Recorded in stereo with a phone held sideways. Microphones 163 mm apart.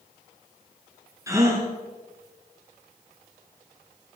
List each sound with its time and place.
1.3 s a gasp: 20° right (ahead or behind), 2 m